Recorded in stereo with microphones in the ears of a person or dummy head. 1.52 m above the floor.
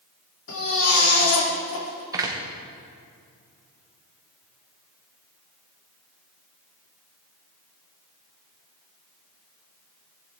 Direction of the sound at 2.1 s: 20° right (ahead or behind).